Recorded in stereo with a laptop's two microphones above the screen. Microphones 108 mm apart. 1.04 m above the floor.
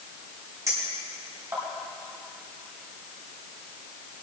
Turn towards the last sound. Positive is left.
turn(degrees=-30)  # may be behind; listen again after turning